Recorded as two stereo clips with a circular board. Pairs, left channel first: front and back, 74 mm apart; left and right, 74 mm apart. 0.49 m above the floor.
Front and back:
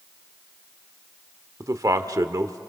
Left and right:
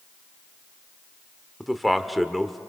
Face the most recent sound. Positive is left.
turn(degrees=180)